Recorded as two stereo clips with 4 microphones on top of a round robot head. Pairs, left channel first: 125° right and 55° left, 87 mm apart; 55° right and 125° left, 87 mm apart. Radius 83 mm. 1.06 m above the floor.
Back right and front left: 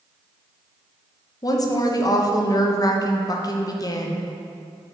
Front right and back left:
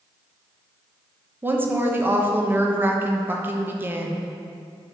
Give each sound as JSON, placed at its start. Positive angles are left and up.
{"t": 1.4, "sound": "a woman speaking", "azimuth_deg": -170, "distance_m": 1.1}